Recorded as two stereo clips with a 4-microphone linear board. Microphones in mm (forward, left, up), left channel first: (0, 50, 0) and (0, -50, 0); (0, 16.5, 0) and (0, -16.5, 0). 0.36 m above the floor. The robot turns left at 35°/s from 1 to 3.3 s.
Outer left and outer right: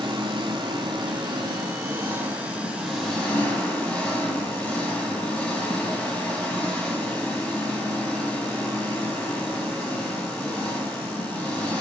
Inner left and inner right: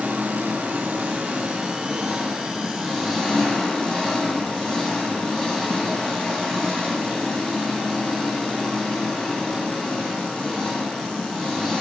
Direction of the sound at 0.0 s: 115° right.